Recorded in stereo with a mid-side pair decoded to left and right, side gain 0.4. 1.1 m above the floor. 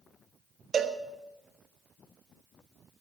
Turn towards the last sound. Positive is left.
turn(degrees=-50)